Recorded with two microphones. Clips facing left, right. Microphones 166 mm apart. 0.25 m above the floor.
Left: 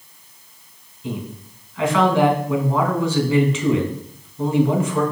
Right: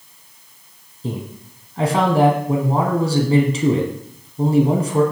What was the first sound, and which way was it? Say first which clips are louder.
A man speaking: right 1 dB; 40° right (ahead or behind).